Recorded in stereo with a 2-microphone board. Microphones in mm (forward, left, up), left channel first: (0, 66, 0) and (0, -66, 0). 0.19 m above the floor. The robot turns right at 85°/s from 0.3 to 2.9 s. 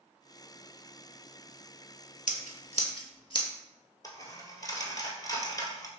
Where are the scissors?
80° left, 0.6 m; by 3.5 s 40° left (ahead or behind), 0.6 m.